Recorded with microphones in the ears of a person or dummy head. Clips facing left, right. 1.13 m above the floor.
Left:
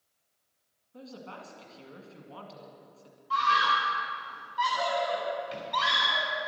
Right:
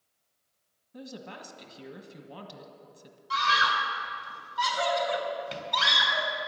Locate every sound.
0.9 s a woman speaking: 35° right (ahead or behind), 1.3 m
3.3 s a scream: 65° right (ahead or behind), 3.5 m